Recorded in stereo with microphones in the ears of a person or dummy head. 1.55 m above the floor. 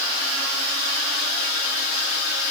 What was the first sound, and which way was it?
Only background noise.